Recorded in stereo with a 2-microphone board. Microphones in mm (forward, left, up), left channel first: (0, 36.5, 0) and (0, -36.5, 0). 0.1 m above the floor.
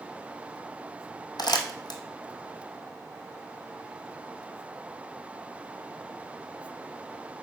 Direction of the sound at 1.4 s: 75° left (ahead or behind).